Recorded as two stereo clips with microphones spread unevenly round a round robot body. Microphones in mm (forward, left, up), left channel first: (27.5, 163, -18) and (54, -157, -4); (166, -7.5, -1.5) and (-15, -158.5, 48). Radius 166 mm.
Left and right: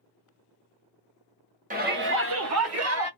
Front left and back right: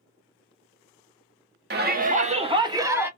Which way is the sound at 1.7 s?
130° right.